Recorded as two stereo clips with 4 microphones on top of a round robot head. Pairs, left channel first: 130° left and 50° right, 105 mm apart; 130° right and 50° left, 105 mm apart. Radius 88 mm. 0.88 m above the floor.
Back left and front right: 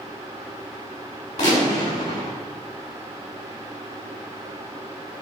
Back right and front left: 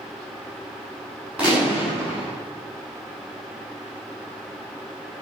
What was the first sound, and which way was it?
A gunshot, 130° left.